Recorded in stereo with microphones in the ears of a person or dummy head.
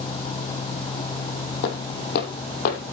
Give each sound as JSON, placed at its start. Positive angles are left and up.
{"t": 1.6, "sound": "footsteps", "side_deg": 60, "distance_m": 3.0}